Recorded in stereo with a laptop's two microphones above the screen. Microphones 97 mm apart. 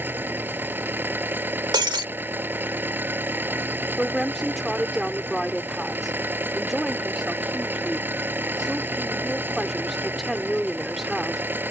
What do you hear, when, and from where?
0.0 s an engine running: 20° right (ahead or behind)
1.7 s breaking glass: 50° right (ahead or behind)
4.0 s a woman speaking: centre (ahead or behind)